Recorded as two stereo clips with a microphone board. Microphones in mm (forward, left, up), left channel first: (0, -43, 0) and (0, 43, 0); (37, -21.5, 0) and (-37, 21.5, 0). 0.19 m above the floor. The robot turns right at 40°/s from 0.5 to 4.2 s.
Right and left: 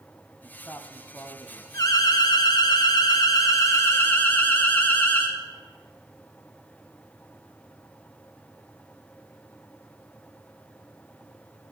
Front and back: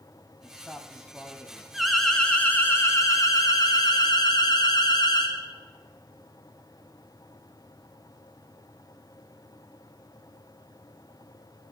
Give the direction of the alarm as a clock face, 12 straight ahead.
4 o'clock.